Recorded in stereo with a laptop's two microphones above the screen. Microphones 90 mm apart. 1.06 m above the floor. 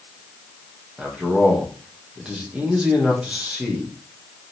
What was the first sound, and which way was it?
A man speaking, 10° right (ahead or behind).